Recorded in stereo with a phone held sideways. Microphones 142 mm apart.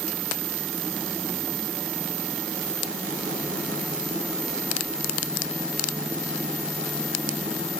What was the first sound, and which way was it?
Only background noise.